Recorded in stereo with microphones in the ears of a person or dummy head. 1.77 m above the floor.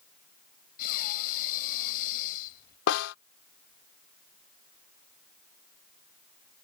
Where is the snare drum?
60° left (ahead or behind).